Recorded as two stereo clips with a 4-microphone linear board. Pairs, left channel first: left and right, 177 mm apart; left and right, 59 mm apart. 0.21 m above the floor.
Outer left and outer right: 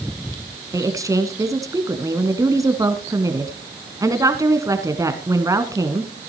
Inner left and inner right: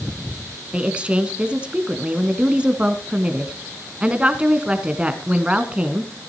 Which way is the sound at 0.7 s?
20° right (ahead or behind).